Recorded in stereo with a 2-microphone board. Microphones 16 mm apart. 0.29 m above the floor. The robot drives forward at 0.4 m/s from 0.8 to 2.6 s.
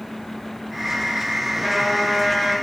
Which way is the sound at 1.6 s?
15° left (ahead or behind).